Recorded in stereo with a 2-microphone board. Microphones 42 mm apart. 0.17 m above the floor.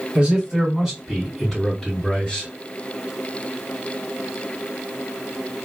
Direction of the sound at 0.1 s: 25° right (ahead or behind).